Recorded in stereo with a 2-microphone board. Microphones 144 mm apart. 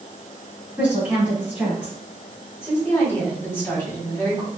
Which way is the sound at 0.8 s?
10° right (ahead or behind).